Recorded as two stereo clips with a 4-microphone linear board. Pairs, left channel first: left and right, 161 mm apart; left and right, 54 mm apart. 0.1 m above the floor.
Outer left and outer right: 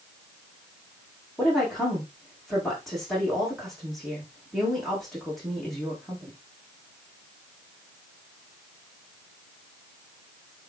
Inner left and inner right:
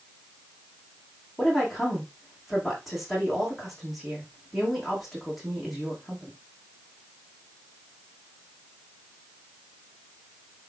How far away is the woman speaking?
About 6 m.